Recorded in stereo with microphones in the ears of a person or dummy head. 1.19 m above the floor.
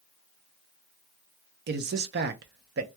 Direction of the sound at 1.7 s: 55° right (ahead or behind).